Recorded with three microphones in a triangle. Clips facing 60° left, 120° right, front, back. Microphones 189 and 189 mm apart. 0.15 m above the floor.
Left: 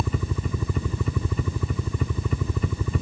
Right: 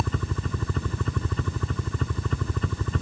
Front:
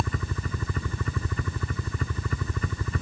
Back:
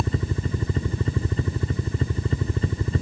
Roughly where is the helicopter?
Behind left.